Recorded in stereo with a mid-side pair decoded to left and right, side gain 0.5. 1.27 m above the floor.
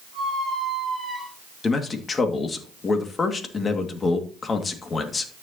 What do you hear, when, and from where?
0.1 s a squeak: 15° left, 7.5 m
1.6 s a man speaking: 35° left, 2.5 m